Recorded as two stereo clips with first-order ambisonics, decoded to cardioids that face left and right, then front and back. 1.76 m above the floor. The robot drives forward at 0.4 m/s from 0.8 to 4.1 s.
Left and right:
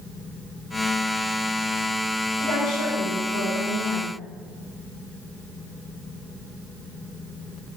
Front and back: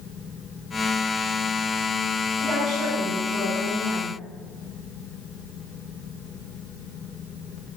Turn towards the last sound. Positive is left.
turn(degrees=120)